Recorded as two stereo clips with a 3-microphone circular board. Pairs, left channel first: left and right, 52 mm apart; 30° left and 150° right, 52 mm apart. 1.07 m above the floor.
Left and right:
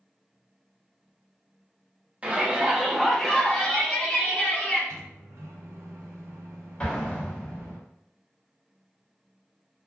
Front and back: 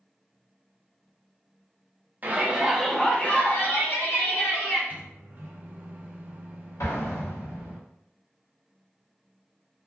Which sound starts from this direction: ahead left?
An explosion, at 6.8 s.